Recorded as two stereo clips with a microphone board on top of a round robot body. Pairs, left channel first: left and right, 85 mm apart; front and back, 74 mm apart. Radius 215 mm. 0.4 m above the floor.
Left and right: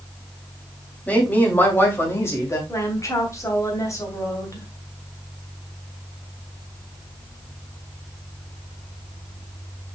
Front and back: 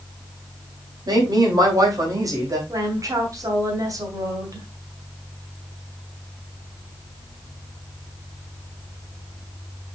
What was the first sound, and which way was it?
A woman speaking, 160° left.